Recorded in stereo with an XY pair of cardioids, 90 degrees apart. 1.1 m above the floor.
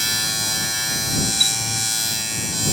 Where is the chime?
Straight ahead.